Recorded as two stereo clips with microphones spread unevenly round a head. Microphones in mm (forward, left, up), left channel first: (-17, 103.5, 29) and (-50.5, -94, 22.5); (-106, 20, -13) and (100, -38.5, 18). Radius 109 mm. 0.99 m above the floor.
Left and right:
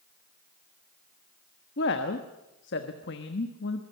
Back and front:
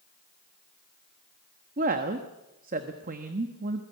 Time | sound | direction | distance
1.8 | a woman speaking | 40° left | 1.2 m